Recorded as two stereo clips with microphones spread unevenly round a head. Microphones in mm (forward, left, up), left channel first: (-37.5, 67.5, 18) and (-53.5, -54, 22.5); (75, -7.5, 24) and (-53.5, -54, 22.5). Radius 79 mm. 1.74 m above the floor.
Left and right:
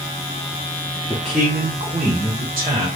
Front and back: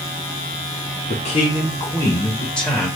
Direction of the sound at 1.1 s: 10° left.